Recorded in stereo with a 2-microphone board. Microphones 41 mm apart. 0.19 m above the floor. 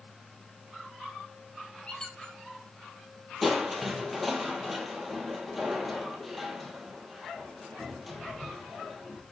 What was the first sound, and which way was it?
A squeak, 25° left (ahead or behind).